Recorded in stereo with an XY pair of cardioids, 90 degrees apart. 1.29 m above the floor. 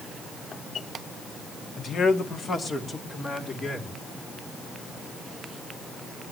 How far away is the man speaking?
About 2.0 m.